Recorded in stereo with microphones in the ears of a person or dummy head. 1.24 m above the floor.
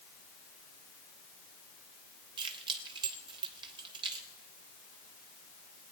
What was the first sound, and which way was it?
Keys jangling, 25° right (ahead or behind).